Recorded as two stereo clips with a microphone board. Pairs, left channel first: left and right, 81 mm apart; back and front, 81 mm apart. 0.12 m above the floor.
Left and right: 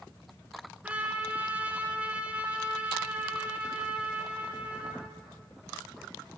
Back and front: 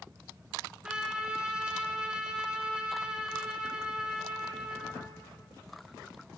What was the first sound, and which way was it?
A trumpet, 60° right.